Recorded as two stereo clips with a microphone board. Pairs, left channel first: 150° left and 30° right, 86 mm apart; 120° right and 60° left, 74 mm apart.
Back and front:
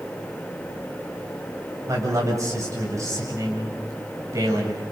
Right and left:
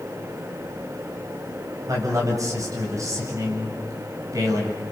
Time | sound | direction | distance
1.9 | a man speaking | 20° left | 8.5 m